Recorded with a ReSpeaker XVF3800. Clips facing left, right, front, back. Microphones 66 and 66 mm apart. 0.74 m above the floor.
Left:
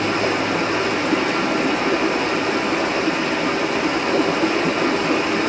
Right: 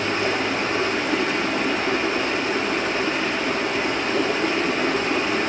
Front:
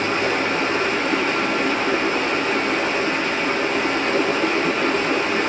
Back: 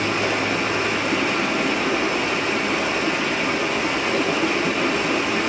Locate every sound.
0.0 s running water: 95° left, 5.5 m